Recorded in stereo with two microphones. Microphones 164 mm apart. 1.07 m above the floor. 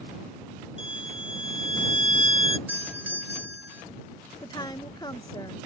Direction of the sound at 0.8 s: 35° left (ahead or behind).